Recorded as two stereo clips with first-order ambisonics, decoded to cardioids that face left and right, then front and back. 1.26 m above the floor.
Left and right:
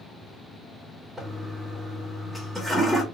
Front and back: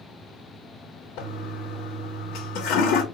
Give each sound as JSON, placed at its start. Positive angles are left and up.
{"t": 1.2, "sound": "a toilet flushing", "azimuth_deg": -5, "distance_m": 1.1}